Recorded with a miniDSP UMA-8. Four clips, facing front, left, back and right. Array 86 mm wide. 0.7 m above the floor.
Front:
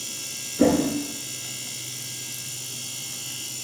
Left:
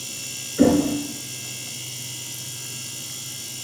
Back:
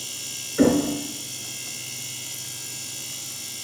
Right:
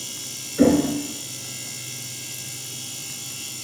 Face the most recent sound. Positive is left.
turn(degrees=-170)